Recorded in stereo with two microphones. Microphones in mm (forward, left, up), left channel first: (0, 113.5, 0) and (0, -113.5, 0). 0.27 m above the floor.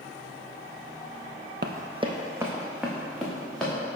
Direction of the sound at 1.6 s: 50° right (ahead or behind).